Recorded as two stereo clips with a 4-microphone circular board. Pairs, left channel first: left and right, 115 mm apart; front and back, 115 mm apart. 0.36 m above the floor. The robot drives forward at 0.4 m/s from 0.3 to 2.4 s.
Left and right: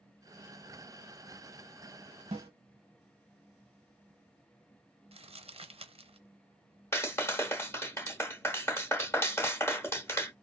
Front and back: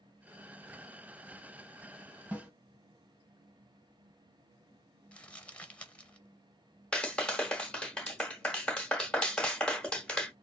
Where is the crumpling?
80° right, 0.6 m.